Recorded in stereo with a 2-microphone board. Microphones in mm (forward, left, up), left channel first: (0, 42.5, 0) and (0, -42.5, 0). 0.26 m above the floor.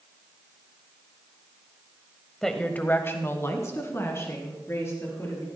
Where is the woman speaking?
5° left (ahead or behind), 0.9 m; by 5.5 s 30° left (ahead or behind), 4.5 m.